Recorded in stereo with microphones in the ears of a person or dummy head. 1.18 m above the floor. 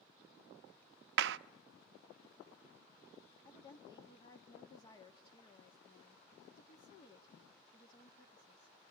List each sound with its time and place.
1.2 s a clap: 70° right (ahead or behind), 0.6 m
3.5 s a woman speaking: 25° left (ahead or behind), 1.8 m